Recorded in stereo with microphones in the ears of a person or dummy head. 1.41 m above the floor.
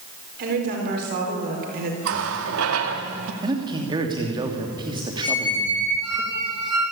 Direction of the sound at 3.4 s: 25° right (ahead or behind).